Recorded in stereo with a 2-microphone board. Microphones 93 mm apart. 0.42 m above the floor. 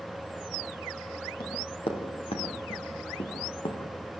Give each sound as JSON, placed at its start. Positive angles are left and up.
{"t": 1.4, "sound": "running footsteps", "side_deg": 75, "distance_m": 6.0}